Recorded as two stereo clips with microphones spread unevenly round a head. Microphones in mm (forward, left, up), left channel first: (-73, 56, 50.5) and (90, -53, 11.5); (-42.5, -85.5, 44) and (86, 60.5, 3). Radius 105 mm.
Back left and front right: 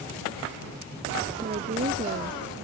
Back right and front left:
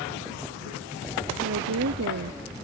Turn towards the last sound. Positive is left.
turn(degrees=20)